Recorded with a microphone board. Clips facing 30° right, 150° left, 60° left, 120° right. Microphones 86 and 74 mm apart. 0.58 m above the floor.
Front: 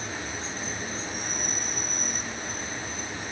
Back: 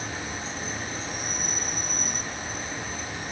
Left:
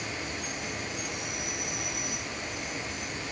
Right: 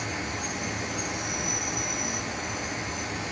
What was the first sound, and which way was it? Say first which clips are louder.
An insect: back 1 dB, right 4 dB; 130° right.